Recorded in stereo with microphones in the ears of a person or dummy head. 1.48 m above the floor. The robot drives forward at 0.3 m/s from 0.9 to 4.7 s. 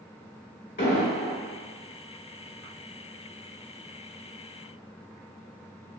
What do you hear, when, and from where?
0.8 s an explosion: 50° left (ahead or behind), 1.5 m